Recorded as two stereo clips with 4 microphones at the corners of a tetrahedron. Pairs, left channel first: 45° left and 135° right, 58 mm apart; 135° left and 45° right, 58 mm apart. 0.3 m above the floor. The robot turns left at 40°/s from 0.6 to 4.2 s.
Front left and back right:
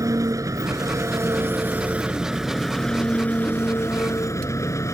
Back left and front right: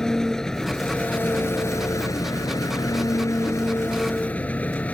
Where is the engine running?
145° right; by 5.0 s 70° left.